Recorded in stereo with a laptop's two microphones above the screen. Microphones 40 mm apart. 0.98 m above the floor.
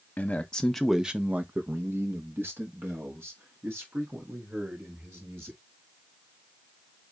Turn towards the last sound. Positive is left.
turn(degrees=-80)